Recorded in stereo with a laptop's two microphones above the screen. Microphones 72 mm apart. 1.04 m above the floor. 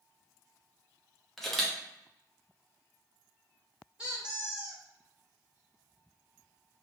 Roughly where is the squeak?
Centre.